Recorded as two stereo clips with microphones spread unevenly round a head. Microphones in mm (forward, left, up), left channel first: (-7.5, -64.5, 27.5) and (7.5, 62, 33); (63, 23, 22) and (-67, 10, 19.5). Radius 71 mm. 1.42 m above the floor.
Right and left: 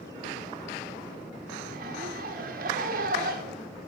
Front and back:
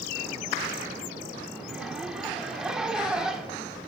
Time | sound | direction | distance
1.6 | a zipper | 100° left | 1.4 m